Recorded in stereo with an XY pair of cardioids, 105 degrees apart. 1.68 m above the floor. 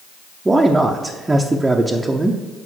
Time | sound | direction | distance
0.5 | a man speaking | 15° right | 0.8 m